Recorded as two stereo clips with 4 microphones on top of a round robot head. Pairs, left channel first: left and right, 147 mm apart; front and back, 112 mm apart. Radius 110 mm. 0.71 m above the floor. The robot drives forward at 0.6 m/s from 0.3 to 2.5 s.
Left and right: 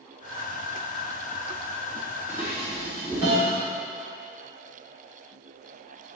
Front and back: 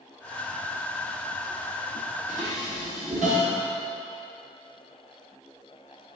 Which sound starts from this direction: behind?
Dishes clattering, at 2.3 s.